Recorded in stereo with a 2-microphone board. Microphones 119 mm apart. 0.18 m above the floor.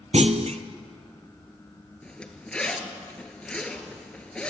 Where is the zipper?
10° left (ahead or behind), 2.0 m.